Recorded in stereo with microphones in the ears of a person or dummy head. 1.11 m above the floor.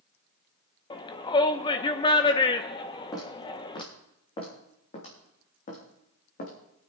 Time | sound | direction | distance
0.9 | a shout | 25° left (ahead or behind) | 0.7 m
3.1 | footsteps | 20° left (ahead or behind) | 3.5 m